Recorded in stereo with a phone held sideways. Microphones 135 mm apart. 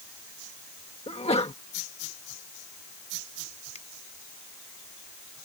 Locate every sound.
1.1 s a sneeze: 50° left (ahead or behind)
3.8 s a finger snap: 55° left (ahead or behind)